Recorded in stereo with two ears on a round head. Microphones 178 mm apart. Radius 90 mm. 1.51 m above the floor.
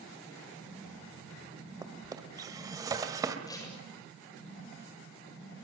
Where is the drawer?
20° right (ahead or behind), 1.9 m.